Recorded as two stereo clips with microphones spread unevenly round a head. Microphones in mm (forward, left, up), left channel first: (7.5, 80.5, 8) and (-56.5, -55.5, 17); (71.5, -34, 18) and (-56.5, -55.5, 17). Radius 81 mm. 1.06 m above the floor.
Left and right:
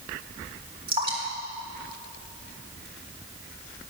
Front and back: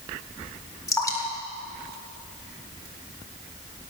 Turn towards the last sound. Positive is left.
turn(degrees=-55)